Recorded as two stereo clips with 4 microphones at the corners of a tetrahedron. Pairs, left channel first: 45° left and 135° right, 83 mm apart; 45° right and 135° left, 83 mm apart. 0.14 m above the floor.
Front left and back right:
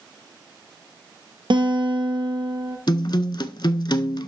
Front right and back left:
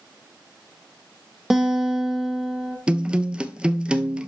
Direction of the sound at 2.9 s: 60° left.